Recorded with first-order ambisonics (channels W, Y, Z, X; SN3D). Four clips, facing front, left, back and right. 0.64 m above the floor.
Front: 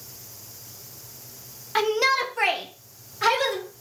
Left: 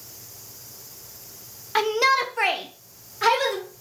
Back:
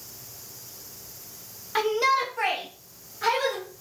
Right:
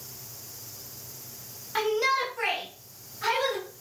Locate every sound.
1.8 s a shout: 70° left, 0.9 m; by 3.6 s 60° left, 2 m